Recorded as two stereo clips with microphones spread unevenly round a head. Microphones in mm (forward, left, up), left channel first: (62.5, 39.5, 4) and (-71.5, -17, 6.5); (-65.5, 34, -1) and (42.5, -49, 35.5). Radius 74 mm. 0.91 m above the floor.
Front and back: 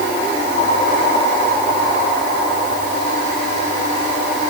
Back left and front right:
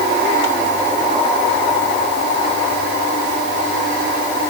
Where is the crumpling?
No crumpling in this recording.